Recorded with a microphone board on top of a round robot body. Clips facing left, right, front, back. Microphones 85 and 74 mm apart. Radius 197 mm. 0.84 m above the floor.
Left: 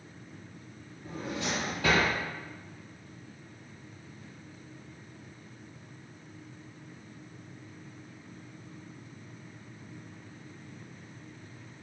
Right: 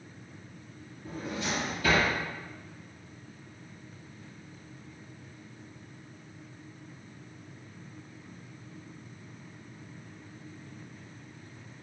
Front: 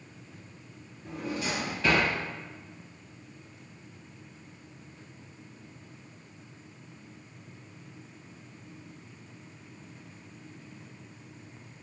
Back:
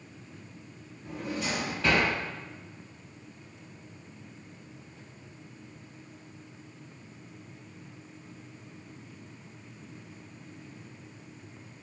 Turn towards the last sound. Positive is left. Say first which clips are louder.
# even, even
turn(degrees=95)